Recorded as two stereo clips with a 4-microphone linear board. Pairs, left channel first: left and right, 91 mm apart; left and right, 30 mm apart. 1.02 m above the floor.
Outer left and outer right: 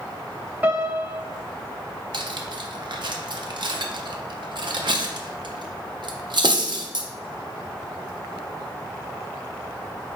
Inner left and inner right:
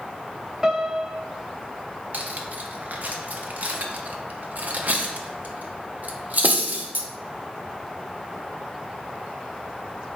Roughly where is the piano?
Right.